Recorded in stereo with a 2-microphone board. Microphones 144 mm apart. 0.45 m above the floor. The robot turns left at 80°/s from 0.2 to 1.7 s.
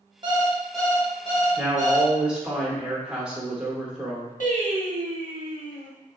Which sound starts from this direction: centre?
A woman speaking, at 1.6 s.